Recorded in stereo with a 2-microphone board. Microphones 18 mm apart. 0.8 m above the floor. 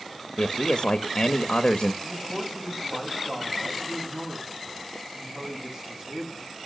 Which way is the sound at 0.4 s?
50° left (ahead or behind).